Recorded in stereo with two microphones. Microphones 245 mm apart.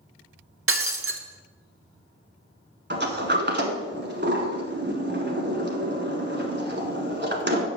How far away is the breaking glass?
About 0.7 m.